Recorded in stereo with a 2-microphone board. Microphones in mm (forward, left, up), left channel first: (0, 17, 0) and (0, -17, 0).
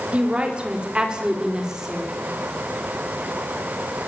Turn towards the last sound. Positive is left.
turn(degrees=-10)  # may be behind; listen again after turning